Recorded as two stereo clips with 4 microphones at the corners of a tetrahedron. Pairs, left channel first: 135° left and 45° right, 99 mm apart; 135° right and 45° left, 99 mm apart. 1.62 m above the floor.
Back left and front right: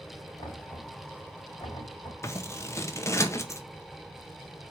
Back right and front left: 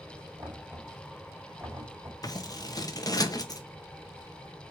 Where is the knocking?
110° left, 3 m.